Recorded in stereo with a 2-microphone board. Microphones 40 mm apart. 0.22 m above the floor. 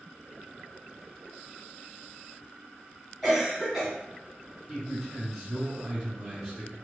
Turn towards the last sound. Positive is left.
turn(degrees=5)  # may be behind; listen again after turning